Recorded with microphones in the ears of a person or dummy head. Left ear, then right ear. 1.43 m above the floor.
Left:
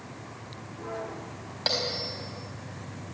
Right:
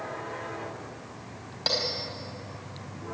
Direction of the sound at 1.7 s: 15° left (ahead or behind).